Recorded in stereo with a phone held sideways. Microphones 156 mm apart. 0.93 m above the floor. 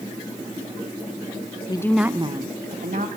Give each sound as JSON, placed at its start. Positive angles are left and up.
{"t": 1.7, "sound": "a woman speaking", "side_deg": 30, "distance_m": 0.8}